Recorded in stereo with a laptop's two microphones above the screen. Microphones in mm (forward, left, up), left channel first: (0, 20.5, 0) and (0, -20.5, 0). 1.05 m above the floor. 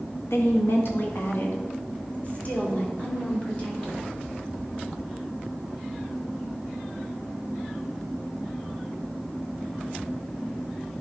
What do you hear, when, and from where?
0.3 s a woman speaking: 75° left (ahead or behind), 1.2 m; by 4.0 s 25° left (ahead or behind), 4.5 m